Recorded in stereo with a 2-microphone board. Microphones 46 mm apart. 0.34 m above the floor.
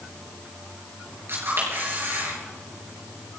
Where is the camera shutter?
55° right (ahead or behind), 5.5 m.